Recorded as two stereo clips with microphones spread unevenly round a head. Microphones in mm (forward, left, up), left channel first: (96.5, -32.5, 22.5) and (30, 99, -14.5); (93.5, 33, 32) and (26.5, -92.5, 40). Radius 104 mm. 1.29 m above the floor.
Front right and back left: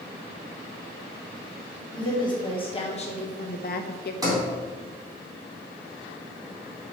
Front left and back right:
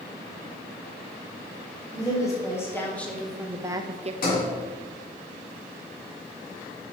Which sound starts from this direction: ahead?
A woman speaking, at 1.9 s.